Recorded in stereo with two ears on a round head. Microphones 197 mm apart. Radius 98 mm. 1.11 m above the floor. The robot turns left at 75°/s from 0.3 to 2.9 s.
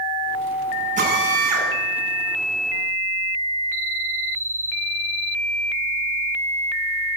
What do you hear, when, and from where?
1.0 s a drill: 35° right, 9.5 m; by 1.7 s 90° right, 9.5 m